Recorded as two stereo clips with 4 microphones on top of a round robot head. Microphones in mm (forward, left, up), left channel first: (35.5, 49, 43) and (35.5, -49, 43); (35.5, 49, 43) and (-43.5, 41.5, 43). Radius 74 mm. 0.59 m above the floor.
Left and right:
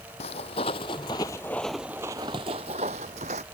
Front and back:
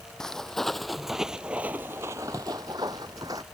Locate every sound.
0.2 s footsteps: 85° left; by 3.4 s 110° right